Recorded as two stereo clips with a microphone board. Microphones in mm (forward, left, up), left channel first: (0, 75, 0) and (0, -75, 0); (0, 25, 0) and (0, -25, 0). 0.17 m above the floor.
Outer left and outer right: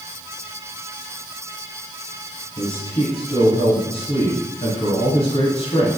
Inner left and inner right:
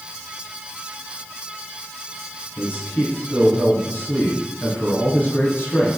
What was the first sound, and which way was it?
A man speaking, 35° left (ahead or behind).